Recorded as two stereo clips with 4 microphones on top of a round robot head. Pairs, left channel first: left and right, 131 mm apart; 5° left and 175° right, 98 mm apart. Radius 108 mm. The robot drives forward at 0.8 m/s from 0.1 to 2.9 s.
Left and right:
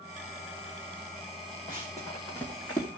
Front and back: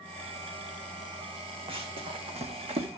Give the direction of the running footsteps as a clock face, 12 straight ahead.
7 o'clock.